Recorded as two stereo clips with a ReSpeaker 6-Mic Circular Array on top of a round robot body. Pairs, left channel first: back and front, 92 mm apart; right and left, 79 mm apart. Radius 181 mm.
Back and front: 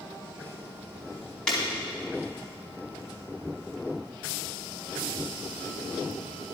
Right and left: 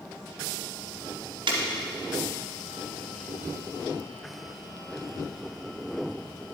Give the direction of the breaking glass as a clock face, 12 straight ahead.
9 o'clock.